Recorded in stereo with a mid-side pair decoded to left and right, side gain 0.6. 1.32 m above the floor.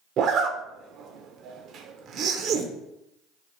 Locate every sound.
0.2 s a zipper: 55° right, 0.6 m